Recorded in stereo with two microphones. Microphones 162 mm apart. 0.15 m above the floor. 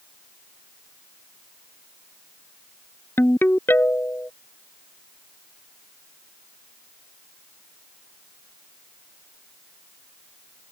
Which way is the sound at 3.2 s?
15° left (ahead or behind).